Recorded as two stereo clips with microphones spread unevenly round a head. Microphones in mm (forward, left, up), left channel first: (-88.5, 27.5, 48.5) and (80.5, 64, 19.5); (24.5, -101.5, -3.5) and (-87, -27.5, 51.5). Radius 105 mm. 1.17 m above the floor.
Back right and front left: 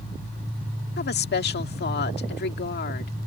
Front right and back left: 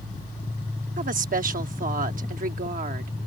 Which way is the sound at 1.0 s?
165° left.